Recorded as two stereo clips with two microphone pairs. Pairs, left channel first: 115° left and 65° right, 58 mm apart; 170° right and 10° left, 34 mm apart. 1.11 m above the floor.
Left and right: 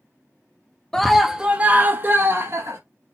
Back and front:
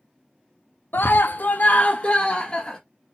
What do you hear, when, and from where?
0.9 s a scream: 165° right, 0.6 m; by 2.8 s 105° right, 1.3 m